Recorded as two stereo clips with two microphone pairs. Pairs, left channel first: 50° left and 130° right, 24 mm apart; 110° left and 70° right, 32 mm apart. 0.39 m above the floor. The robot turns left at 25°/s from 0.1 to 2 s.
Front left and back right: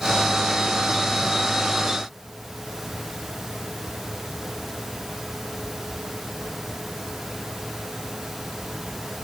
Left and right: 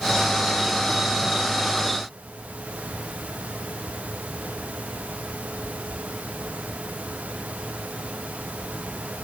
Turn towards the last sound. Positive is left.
No sound to turn to.